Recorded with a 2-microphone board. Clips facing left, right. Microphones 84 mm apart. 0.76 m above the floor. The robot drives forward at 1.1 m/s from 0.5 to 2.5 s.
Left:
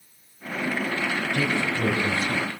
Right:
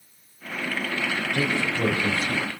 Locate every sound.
1.3 s a man speaking: 35° right (ahead or behind), 4.5 m; by 2.6 s 45° right (ahead or behind), 3.5 m